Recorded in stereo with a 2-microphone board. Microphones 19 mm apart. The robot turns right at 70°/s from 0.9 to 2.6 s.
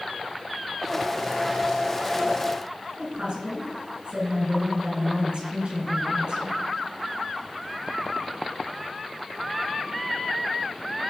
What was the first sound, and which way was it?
A woman speaking, 55° right (ahead or behind).